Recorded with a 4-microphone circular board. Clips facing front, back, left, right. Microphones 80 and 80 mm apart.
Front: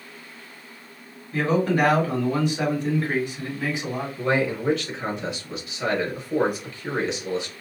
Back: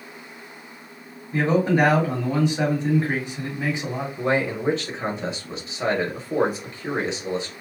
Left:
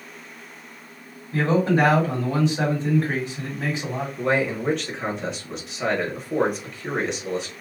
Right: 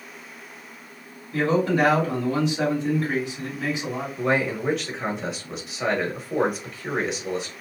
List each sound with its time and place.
1.3 s a man speaking: 125° left, 1.8 m
4.2 s a man speaking: 175° right, 1.0 m